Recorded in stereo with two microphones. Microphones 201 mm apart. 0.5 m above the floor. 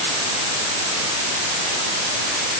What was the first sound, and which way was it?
Only background noise.